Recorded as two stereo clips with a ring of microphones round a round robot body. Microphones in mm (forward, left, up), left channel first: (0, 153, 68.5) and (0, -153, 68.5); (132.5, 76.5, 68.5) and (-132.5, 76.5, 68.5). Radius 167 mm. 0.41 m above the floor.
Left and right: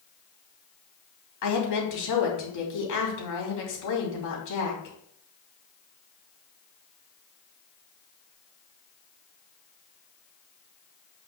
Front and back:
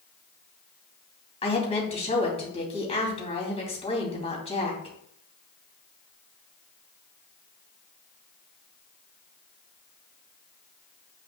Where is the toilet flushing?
No toilet flushing in this recording.